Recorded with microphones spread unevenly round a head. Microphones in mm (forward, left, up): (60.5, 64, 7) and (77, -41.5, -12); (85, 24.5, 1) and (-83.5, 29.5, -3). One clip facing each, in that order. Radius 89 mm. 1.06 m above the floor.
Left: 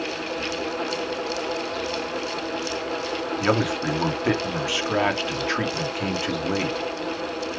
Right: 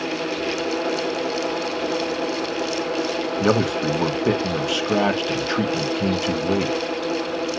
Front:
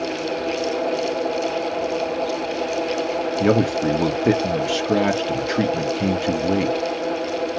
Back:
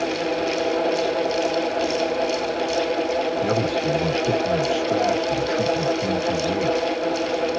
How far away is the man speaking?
About 1.4 m.